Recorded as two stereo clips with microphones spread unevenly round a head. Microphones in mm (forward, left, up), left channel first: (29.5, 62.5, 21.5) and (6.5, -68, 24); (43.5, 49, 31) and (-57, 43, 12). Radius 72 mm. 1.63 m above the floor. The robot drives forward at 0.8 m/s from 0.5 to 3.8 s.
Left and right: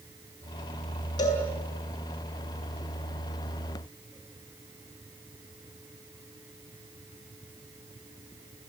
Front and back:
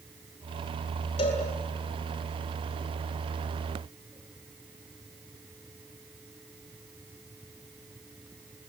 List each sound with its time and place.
1.2 s a cowbell: 20° left, 7.5 m